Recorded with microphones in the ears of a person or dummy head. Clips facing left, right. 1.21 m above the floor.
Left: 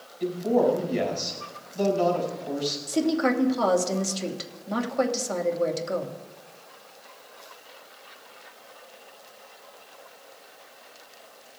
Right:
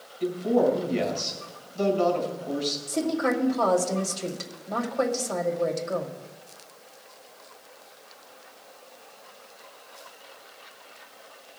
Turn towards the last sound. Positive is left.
turn(degrees=55)  # may be behind; listen again after turning